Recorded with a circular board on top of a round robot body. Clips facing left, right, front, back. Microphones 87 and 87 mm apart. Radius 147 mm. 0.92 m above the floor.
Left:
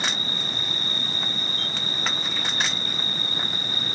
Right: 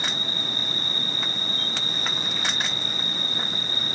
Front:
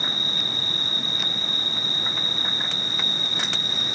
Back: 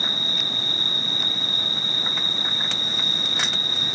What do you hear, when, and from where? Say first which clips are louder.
0.0 s an insect: left 1 dB, even; 135° left, 1.6 m